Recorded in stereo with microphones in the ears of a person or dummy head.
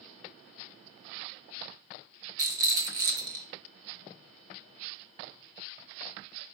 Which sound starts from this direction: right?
A rattle, at 2.4 s.